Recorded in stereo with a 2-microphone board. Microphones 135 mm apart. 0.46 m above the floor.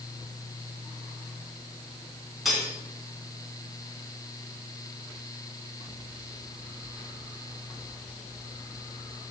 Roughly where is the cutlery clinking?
Centre.